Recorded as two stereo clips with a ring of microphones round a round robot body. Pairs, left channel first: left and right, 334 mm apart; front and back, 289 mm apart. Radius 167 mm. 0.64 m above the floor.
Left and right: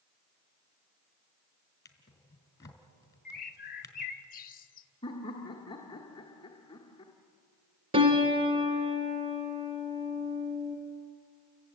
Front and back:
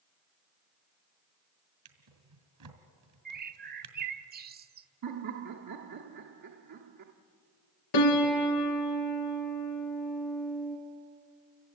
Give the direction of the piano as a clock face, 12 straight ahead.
1 o'clock.